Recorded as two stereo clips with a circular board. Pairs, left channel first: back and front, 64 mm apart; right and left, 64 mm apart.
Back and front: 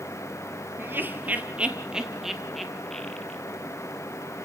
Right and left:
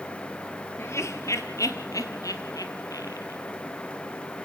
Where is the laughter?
50° right, 2.5 m; by 3.4 s 100° right, 3.5 m.